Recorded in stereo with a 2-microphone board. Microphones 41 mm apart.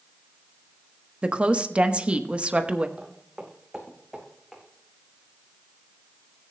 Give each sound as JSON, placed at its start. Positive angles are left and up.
{"t": 1.2, "sound": "a woman speaking", "side_deg": -30, "distance_m": 0.9}
{"t": 3.0, "sound": "footsteps", "side_deg": -25, "distance_m": 2.0}